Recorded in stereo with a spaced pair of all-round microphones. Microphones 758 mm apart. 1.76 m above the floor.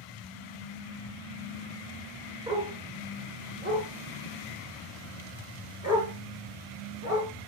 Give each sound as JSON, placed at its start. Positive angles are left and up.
{"t": 2.5, "sound": "a dog barking", "side_deg": -10, "distance_m": 6.0}